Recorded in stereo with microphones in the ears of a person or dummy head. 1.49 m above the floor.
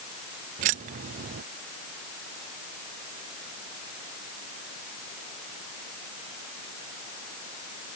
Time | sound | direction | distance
0.6 | keys jangling | 40° right (ahead or behind) | ?